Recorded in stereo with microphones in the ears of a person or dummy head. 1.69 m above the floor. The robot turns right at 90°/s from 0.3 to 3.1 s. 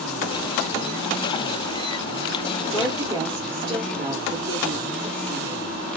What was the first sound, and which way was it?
A woman speaking, 160° left.